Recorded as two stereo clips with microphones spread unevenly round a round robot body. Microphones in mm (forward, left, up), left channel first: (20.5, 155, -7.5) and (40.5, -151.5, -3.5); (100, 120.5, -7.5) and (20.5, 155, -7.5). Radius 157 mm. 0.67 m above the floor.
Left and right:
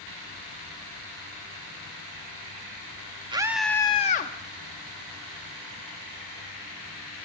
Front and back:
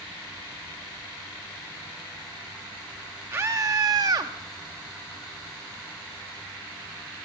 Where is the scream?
155° right, 0.6 m; by 4.3 s 145° left, 0.7 m.